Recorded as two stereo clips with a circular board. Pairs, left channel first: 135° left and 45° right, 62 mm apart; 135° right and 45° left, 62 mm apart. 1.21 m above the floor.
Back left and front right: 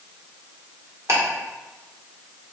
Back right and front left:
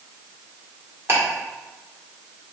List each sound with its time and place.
1.1 s ticking: 5° right, 1.4 m